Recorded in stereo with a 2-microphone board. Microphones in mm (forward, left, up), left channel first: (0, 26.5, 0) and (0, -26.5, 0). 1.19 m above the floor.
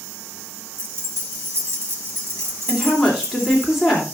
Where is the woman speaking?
5° right (ahead or behind), 3 m.